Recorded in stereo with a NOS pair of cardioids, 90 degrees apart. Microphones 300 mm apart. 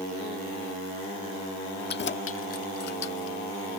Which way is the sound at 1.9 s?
35° left.